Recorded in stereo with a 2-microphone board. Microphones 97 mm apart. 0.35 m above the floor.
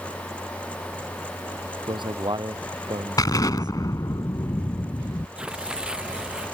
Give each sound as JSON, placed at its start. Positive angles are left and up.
{"t": 1.9, "sound": "a man speaking", "side_deg": -55}
{"t": 3.2, "sound": "an explosion", "side_deg": 40}
{"t": 5.4, "sound": "tearing paper", "side_deg": -10}